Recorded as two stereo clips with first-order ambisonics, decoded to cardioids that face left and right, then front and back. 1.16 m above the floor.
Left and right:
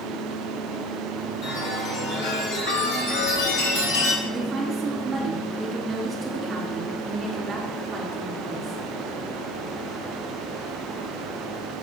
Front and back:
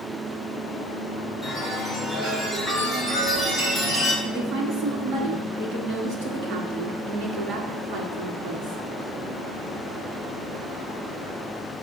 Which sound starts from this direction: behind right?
A woman speaking, at 4.2 s.